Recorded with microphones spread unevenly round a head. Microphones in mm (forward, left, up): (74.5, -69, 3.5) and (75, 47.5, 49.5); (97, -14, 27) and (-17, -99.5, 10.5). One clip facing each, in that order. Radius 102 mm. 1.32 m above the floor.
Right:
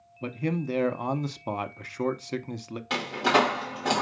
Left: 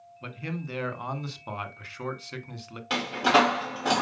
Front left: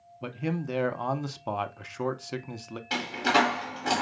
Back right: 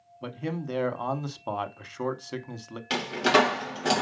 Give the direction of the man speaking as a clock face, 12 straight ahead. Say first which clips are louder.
Right 7 dB, front left 1 dB; 2 o'clock.